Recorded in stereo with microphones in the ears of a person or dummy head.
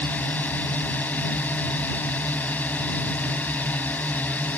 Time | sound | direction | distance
0.0 | a drone | 5° left (ahead or behind) | ?